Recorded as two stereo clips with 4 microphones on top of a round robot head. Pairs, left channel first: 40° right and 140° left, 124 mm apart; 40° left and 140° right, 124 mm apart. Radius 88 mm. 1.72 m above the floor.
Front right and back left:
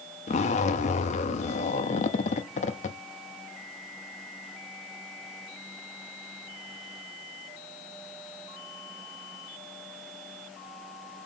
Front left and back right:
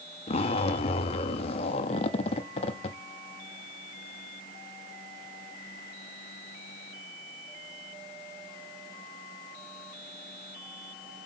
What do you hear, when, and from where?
0.3 s a zipper: 5° right, 0.6 m